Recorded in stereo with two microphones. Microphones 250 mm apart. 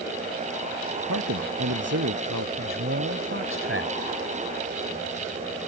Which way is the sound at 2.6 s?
55° right (ahead or behind).